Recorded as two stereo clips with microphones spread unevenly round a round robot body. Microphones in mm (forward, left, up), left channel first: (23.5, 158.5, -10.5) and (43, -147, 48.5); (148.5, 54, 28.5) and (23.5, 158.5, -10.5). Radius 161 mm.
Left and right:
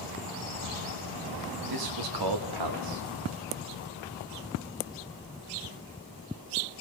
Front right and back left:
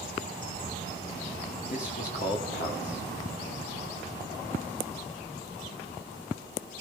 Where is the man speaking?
110° right, 2.0 m.